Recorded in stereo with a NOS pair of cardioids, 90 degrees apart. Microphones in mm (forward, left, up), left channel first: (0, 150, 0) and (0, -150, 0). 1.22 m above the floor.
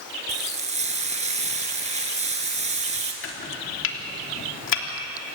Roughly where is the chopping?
Ahead left.